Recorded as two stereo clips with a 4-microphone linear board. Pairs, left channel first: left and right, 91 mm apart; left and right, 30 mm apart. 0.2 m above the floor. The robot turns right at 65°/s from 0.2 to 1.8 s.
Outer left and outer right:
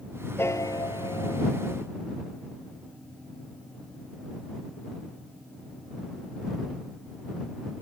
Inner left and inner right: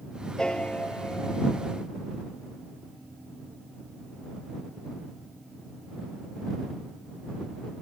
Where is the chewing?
No chewing in this recording.